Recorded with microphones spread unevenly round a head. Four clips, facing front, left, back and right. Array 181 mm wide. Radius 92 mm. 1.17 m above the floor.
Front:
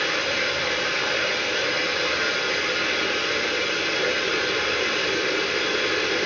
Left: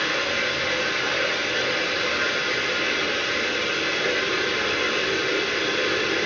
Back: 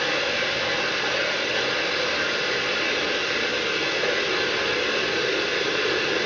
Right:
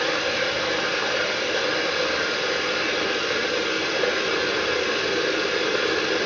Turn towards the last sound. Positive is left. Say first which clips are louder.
# right 2 dB, even
turn(degrees=-95)